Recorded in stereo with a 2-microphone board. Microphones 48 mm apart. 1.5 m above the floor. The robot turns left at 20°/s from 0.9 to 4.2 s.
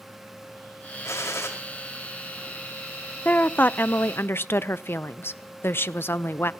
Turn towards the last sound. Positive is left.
turn(degrees=45)  # may be behind; listen again after turning